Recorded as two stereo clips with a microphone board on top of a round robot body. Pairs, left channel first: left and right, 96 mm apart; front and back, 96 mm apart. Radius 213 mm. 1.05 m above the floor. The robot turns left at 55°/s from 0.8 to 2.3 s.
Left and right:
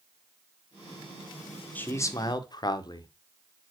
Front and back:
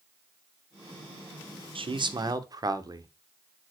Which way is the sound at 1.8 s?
160° left.